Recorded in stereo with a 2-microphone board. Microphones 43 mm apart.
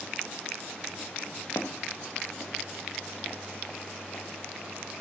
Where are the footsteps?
80° left, 1.8 m; by 4.2 s 40° left (ahead or behind), 3.5 m.